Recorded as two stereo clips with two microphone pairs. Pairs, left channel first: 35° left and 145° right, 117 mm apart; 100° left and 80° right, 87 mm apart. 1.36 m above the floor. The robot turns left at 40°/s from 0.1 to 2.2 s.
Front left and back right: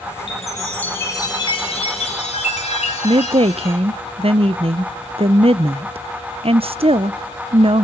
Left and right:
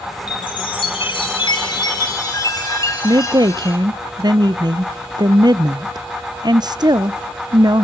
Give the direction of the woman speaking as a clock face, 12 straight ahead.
4 o'clock.